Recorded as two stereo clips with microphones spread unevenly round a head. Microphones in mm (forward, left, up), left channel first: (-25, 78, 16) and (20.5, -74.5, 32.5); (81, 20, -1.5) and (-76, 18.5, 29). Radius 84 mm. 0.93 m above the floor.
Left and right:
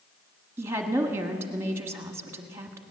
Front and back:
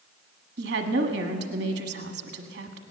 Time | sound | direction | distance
0.6 | a woman speaking | 150° right | 1.4 m